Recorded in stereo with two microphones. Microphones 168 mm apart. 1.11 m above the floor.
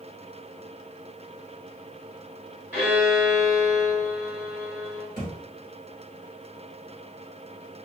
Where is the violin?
10° right (ahead or behind), 1.7 m.